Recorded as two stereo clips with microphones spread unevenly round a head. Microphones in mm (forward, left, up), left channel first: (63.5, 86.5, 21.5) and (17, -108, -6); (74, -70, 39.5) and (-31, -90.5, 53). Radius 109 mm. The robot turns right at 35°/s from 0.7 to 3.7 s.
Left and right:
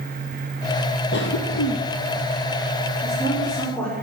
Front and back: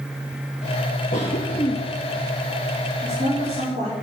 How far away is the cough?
About 1.1 m.